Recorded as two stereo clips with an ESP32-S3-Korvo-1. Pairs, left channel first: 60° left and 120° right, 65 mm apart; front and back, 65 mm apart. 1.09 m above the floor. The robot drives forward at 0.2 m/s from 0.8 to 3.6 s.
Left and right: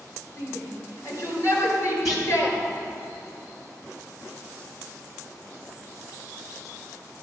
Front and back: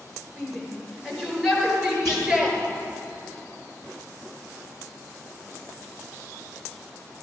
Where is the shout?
100° left, 4 m; by 2.6 s 105° left, 4 m.